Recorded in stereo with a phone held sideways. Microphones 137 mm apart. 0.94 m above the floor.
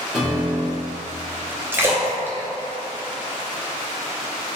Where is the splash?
15° right (ahead or behind), 0.6 m.